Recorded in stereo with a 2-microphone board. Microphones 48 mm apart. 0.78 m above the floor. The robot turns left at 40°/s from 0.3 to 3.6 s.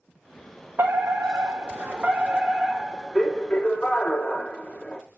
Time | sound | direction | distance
0.8 | a fire alarm | 85° right | 3 m